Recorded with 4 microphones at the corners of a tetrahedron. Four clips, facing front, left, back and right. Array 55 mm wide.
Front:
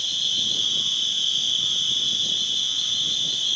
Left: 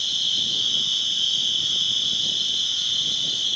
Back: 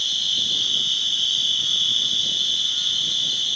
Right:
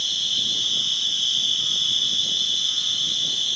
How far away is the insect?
About 0.8 m.